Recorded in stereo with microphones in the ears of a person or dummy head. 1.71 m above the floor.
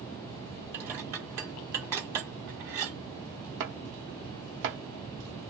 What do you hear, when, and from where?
0.7 s dishes clattering: 20° right (ahead or behind), 0.7 m
3.6 s chopping: 70° right (ahead or behind), 0.9 m